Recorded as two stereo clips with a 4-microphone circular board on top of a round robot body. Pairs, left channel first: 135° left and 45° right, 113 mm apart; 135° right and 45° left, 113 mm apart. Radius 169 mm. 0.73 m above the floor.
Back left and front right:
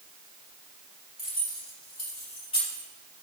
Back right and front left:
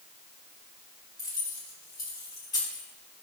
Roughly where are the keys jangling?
Behind.